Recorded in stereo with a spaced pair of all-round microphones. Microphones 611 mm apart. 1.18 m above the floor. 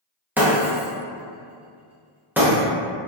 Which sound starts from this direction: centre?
Breaking glass, at 0.4 s.